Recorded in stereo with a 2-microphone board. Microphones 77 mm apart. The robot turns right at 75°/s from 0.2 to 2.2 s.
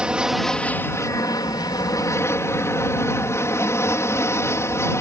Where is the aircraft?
15° right; by 5.0 s 135° left.